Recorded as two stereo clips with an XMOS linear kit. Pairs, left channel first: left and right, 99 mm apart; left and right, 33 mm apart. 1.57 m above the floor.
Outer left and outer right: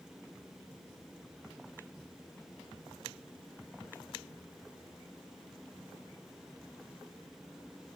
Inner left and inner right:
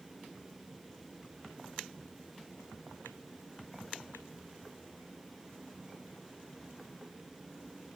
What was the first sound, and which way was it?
Only background noise.